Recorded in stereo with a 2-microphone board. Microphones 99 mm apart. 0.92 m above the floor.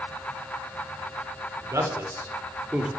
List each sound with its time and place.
1.6 s a man speaking: 35° right (ahead or behind), 3.5 m; by 2.9 s 10° right (ahead or behind), 3 m